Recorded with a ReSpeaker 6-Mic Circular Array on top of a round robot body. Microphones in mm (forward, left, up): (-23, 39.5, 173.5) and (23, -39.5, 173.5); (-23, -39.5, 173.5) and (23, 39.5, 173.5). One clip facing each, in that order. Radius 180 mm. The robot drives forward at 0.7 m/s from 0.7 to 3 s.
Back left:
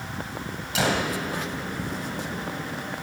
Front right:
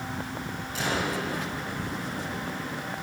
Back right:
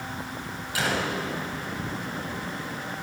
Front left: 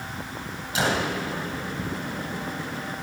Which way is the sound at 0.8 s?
125° left.